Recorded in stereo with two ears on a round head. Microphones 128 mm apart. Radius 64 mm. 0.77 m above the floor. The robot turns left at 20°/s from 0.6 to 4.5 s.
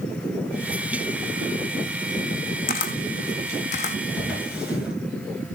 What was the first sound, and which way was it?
A camera shutter, 65° left (ahead or behind).